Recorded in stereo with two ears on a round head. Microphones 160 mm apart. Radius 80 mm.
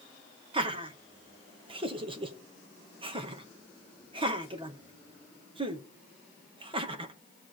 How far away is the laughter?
About 1.3 m.